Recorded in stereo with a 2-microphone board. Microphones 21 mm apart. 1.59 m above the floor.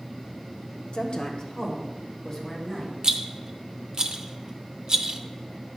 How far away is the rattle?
About 0.6 m.